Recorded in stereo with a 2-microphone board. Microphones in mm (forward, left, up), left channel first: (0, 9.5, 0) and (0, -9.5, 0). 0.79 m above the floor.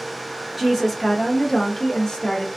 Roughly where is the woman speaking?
Centre.